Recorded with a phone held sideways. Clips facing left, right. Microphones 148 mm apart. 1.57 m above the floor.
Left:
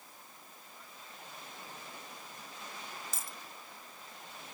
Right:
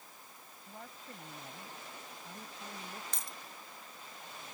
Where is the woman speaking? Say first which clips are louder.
Right 7 dB; 60° right (ahead or behind); by 3.0 s 65° right (ahead or behind).